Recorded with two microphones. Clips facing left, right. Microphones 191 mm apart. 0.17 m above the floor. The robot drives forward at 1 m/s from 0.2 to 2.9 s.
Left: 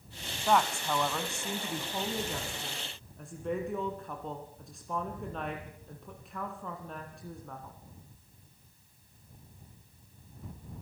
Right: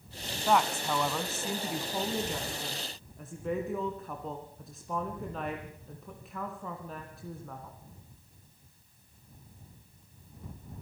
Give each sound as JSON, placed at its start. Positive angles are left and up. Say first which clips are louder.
{"t": 0.5, "sound": "a woman speaking", "louder": "right 1 dB", "side_deg": -5, "distance_m": 1.4}